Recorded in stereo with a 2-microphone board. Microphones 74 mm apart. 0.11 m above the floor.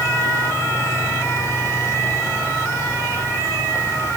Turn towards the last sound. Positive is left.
No sound to turn to.